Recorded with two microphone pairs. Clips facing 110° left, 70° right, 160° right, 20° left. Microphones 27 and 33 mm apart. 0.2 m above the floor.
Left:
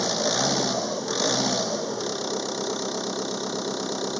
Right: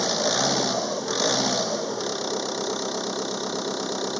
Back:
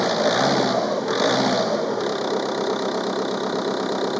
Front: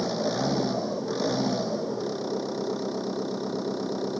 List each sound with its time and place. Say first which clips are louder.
0.0 s an engine running: right 1 dB, back 8 dB; 155° right